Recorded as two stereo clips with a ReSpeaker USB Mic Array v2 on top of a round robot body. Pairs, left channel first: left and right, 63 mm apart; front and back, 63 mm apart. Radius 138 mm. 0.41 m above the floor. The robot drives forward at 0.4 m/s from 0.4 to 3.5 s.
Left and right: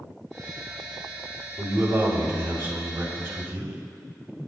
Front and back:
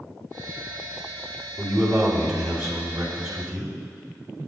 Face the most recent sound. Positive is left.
turn(degrees=-155)